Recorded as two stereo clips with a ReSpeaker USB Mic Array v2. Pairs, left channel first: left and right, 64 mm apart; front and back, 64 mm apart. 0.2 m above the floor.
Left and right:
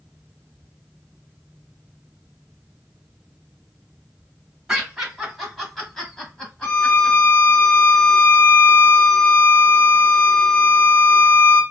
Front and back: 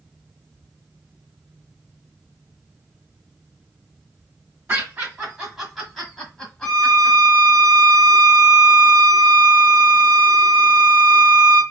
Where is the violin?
80° left, 2.0 m.